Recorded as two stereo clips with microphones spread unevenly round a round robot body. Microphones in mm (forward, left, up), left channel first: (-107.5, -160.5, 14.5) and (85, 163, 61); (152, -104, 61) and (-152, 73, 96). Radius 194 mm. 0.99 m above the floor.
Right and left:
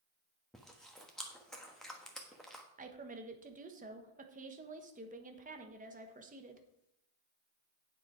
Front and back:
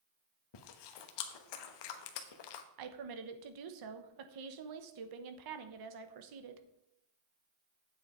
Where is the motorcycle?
No motorcycle in this recording.